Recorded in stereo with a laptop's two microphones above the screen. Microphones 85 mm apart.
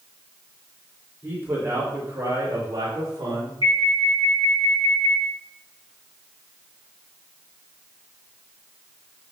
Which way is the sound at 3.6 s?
75° left (ahead or behind).